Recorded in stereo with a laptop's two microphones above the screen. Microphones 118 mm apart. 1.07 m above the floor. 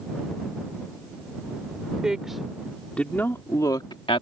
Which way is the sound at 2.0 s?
5° right (ahead or behind).